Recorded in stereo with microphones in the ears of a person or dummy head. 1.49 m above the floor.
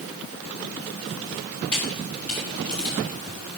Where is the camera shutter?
5° left (ahead or behind), 3.5 m.